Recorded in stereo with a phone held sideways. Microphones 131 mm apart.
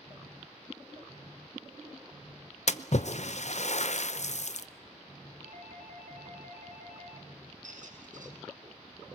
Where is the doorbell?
75° right (ahead or behind), 2.0 m.